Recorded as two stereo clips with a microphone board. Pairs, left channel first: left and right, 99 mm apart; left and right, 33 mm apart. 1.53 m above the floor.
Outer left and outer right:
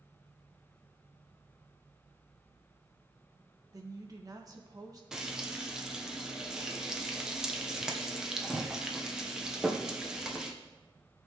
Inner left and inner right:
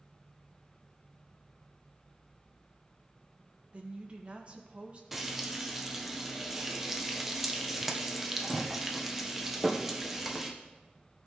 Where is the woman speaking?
40° right (ahead or behind), 1.5 m.